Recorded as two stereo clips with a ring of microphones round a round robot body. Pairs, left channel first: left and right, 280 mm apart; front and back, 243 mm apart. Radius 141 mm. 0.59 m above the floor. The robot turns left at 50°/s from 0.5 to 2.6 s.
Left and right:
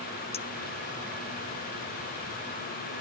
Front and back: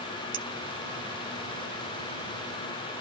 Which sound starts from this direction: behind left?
A clink, at 0.3 s.